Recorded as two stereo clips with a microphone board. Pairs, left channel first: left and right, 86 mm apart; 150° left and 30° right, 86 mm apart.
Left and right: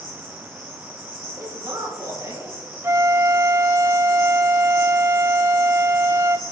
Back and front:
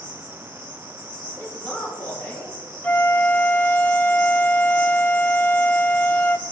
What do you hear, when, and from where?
0.0 s an insect: 125° left, 4.5 m
1.3 s a man speaking: 145° right, 4.5 m
2.8 s a flute: 145° right, 0.5 m